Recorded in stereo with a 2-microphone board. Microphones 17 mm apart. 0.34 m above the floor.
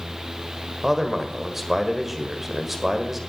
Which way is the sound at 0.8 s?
10° right (ahead or behind).